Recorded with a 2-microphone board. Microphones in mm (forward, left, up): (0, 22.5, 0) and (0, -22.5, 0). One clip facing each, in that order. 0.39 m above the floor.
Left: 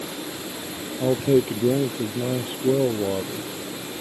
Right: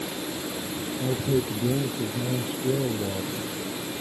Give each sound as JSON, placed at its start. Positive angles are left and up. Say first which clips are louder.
{"t": 1.0, "sound": "a man speaking", "louder": "left 7 dB", "side_deg": 55}